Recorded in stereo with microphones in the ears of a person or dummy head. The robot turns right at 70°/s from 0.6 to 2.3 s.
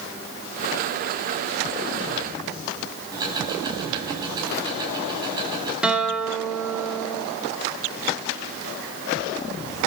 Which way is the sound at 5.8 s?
5° right (ahead or behind).